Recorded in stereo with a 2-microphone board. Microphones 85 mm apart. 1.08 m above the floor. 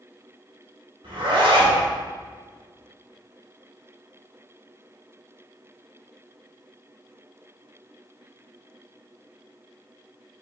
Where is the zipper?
80° right, 1.7 m.